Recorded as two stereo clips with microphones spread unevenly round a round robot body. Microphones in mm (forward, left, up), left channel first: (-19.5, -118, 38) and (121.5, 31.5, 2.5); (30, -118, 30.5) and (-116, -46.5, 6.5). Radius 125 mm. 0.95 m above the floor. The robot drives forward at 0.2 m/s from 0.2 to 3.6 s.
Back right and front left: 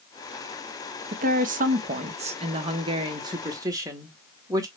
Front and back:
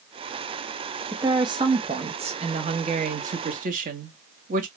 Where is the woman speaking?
85° left, 0.9 m; by 4.7 s 120° left, 1.0 m.